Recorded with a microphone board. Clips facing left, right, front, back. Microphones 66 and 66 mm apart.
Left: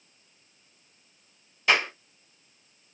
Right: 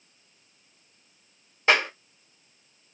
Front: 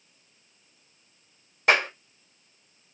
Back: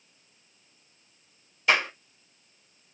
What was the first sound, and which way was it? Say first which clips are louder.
A clap: right 2 dB, front 2 dB; 35° right.